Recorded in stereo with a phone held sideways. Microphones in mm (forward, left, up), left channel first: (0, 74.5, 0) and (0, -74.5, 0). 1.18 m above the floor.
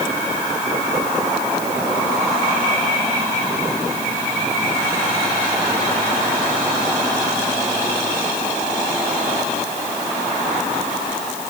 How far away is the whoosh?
I don't hear a whoosh.